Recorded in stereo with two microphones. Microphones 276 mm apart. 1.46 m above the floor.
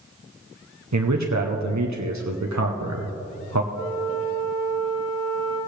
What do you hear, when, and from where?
0.9 s a man speaking: 80° right, 0.9 m
3.7 s a flute: 45° left (ahead or behind), 4.5 m